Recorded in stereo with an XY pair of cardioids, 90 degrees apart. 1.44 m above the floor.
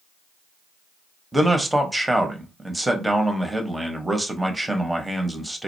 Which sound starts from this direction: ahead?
A man speaking, at 1.3 s.